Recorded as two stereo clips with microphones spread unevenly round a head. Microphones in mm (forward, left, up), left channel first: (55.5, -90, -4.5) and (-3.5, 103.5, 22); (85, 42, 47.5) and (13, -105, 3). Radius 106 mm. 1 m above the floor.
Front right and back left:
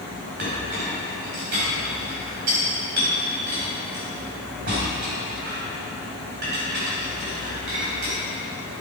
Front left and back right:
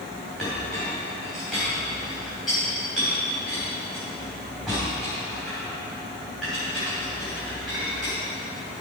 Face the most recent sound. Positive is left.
turn(degrees=150)